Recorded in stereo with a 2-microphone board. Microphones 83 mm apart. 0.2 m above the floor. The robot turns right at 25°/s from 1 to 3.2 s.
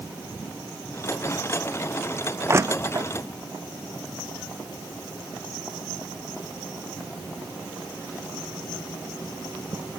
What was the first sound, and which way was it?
Crushing, 30° right (ahead or behind).